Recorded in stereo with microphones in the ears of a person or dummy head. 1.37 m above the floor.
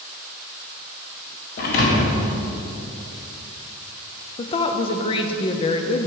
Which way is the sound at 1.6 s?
45° left (ahead or behind).